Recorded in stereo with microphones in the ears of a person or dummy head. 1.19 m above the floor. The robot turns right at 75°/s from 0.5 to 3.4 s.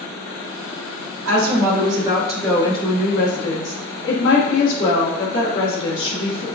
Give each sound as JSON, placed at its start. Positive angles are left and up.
{"t": 1.2, "sound": "a woman speaking", "azimuth_deg": -85, "distance_m": 1.7}